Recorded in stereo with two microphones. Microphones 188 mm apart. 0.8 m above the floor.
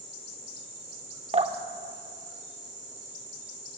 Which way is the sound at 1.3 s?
35° right (ahead or behind).